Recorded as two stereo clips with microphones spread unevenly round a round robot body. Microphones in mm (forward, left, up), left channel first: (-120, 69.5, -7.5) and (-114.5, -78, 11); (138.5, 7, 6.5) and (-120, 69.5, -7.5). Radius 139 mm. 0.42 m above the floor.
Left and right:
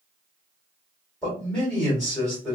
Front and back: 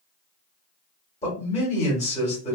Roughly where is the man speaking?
Ahead left.